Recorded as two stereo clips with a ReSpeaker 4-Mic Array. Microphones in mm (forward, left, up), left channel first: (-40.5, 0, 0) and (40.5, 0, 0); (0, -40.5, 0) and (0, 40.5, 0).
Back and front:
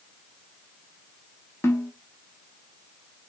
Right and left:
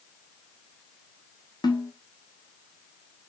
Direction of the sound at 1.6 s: 120° right.